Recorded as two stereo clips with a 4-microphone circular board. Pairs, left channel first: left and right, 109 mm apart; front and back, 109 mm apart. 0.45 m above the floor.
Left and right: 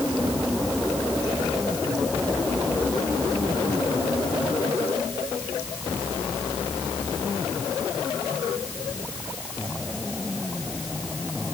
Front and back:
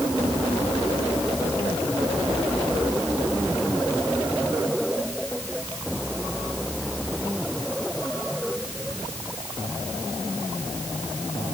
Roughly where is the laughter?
I don't hear laughter.